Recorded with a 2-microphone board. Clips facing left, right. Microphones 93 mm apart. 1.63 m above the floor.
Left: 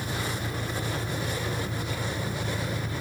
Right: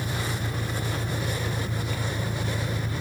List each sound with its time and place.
0.0 s an engine running: 80° right